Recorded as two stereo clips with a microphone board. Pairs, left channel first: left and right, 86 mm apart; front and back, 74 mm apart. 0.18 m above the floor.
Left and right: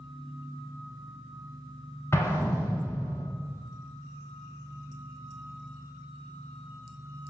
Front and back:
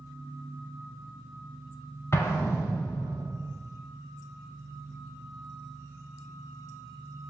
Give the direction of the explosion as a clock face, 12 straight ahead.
11 o'clock.